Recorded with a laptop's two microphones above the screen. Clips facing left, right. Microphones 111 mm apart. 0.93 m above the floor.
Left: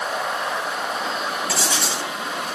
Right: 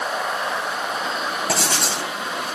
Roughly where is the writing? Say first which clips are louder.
Right 1 dB; right.